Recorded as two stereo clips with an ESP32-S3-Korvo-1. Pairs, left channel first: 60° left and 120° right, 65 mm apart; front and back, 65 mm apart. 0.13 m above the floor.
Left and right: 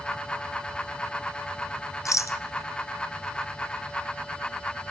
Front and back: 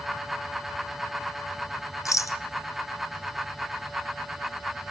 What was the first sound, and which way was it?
A rattle, 30° left.